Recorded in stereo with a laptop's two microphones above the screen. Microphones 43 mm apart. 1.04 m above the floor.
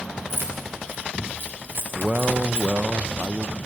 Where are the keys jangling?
60° right (ahead or behind), 3.5 m.